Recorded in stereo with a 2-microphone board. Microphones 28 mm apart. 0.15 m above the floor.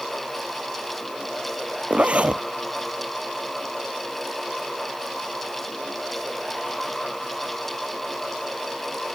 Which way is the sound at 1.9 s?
55° right (ahead or behind).